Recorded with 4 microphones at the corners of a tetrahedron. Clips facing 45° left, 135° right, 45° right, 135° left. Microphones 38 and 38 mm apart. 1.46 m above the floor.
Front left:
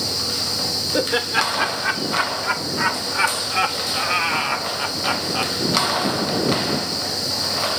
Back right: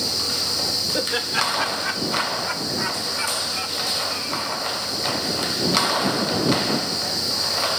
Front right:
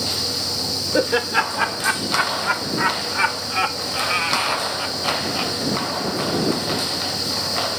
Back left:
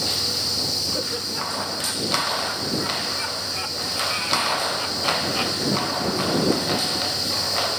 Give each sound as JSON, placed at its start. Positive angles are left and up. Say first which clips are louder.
{"t": 0.9, "sound": "laughter", "louder": "front left 5 dB, front right 9 dB", "azimuth_deg": -30}